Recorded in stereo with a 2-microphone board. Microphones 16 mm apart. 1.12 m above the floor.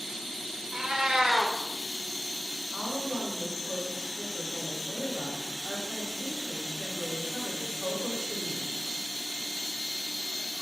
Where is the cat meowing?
65° right (ahead or behind), 0.5 m.